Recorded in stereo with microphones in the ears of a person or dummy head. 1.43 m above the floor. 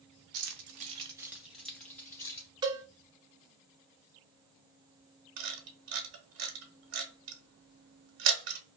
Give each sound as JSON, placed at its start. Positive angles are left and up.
{"t": 0.3, "sound": "keys jangling", "side_deg": -60, "distance_m": 0.7}
{"t": 2.6, "sound": "a cowbell", "side_deg": -15, "distance_m": 0.6}
{"t": 5.4, "sound": "a camera shutter", "side_deg": -65, "distance_m": 0.9}